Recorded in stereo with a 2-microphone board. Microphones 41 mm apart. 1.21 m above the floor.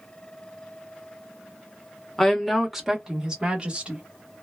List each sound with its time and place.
2.2 s a woman speaking: 10° left (ahead or behind), 0.9 m; by 4.0 s 30° right (ahead or behind), 1.6 m